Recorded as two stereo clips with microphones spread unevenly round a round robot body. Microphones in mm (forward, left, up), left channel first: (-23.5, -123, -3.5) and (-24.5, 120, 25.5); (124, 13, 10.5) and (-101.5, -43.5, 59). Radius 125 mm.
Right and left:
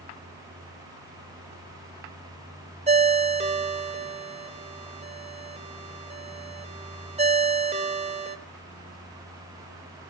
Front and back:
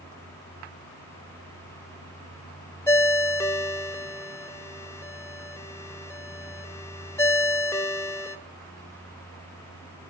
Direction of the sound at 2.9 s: 45° left.